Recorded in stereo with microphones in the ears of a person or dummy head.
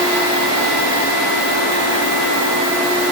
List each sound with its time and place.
Only background noise.